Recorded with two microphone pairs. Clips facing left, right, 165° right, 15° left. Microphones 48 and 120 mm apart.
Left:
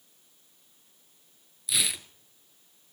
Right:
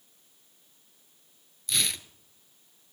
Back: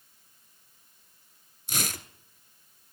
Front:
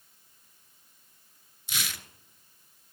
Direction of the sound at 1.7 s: Straight behind.